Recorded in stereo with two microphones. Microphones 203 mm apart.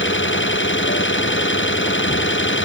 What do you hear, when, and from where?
0.0 s an engine running: 70° left (ahead or behind)